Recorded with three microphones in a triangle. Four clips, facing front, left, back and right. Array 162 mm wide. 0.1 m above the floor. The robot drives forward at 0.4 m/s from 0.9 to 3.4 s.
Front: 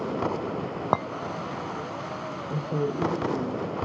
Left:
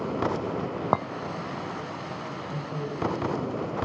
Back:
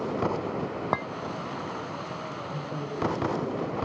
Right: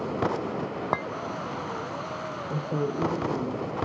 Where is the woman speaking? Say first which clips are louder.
Right 7 dB, front 9 dB; 50° right, 6.5 m.